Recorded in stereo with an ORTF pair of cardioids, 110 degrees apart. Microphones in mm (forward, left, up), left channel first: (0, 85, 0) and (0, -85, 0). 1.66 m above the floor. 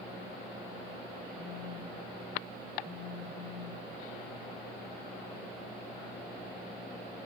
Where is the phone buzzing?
35° right, 1.0 m.